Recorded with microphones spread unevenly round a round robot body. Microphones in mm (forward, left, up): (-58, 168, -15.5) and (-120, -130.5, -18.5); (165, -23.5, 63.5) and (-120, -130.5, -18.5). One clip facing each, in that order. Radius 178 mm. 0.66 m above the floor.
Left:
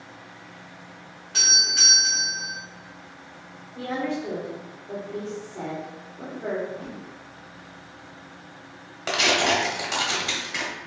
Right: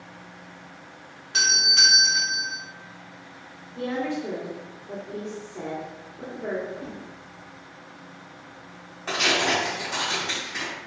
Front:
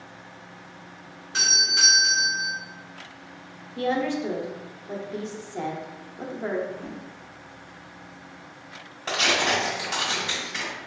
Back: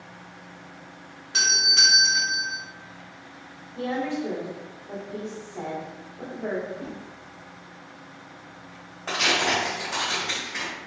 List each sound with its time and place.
1.3 s a doorbell: 165° right, 1.1 m
3.8 s a woman speaking: 10° right, 0.7 m
6.7 s a whoosh: 145° left, 1.3 m
9.1 s tearing paper: 95° left, 1.2 m